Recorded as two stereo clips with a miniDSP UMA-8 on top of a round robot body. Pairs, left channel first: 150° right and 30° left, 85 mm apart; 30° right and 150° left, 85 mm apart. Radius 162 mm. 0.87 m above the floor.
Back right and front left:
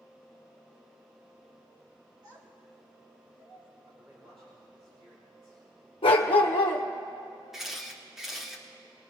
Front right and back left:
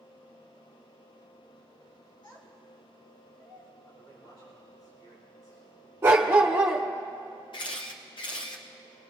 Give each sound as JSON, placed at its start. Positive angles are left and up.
{"t": 2.2, "sound": "a child speaking", "azimuth_deg": -5, "distance_m": 3.5}
{"t": 3.9, "sound": "a man speaking", "azimuth_deg": 15, "distance_m": 7.0}
{"t": 6.0, "sound": "a dog barking", "azimuth_deg": -145, "distance_m": 1.1}
{"t": 7.5, "sound": "a camera shutter", "azimuth_deg": -55, "distance_m": 0.9}